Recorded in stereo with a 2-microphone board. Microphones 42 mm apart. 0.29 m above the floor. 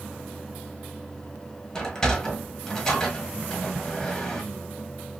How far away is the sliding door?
About 1.0 m.